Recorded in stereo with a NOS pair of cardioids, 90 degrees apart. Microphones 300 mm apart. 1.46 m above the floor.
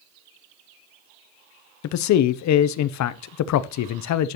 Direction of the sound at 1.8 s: 65° left.